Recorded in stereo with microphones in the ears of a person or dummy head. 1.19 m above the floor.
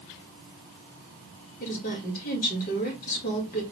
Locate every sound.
1.6 s a woman speaking: 50° left (ahead or behind), 2 m